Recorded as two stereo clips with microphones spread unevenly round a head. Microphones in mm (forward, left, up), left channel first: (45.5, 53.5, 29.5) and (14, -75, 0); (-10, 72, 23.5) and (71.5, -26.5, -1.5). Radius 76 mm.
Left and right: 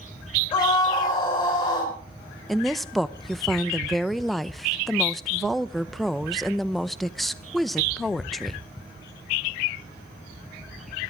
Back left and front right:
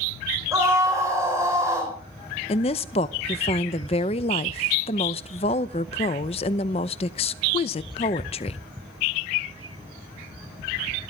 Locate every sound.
0.5 s a scream: 20° left, 5 m
2.5 s a woman speaking: 175° left, 0.6 m